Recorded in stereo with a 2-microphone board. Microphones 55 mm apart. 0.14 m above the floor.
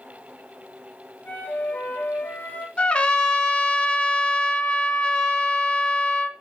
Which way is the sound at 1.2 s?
30° left (ahead or behind).